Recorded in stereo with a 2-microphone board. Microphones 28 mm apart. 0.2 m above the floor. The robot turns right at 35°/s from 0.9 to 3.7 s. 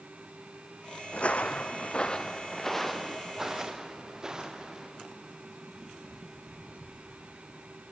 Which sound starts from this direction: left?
Footsteps, at 1.1 s.